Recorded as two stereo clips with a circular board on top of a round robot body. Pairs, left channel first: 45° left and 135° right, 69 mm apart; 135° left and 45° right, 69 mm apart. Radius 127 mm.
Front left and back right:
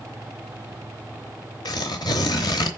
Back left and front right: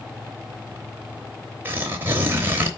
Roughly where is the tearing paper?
Ahead.